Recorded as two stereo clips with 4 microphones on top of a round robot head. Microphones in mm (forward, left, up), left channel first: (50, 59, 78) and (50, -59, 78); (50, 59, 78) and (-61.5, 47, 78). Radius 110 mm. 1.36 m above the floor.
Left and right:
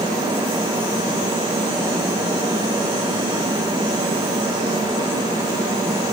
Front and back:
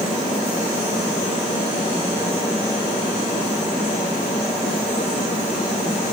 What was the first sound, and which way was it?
Only background noise.